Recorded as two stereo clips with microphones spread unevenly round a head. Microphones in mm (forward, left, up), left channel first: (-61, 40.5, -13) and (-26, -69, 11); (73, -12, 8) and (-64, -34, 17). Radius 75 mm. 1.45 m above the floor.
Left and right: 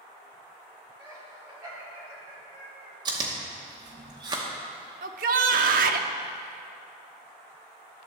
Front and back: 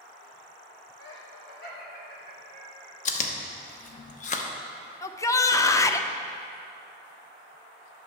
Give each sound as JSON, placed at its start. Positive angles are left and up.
{"t": 1.0, "sound": "laughter", "azimuth_deg": 5, "distance_m": 2.5}
{"t": 3.0, "sound": "chewing", "azimuth_deg": -20, "distance_m": 0.8}
{"t": 5.0, "sound": "a shout", "azimuth_deg": -55, "distance_m": 0.6}